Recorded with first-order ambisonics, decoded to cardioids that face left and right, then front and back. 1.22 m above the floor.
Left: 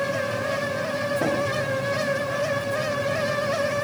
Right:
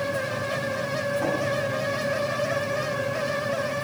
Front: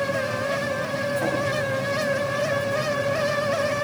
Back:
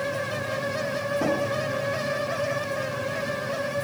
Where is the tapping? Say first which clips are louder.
Left 3 dB, back 3 dB; 130° left, 1.0 m.